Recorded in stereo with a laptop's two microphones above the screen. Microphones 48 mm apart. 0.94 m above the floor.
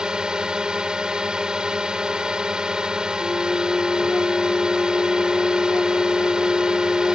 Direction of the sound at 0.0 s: 15° right (ahead or behind).